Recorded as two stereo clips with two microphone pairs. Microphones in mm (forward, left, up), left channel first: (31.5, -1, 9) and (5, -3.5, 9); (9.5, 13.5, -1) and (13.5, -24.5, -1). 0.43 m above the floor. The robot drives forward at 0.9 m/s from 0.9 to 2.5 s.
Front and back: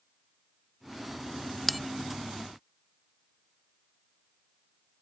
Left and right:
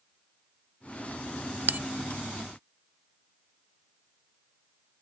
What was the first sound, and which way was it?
A bell, 75° right.